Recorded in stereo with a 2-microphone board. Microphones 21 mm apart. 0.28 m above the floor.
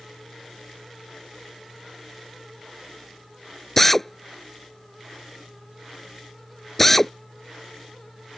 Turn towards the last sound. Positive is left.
turn(degrees=10)  # may be behind; listen again after turning